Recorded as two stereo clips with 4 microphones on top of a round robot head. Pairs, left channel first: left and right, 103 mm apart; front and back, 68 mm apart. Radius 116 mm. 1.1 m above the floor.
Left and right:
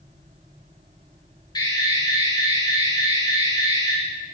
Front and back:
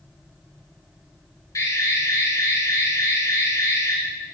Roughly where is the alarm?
Ahead left.